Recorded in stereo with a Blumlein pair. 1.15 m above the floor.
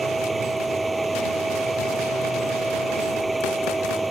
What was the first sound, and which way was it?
A machine running, 10° right.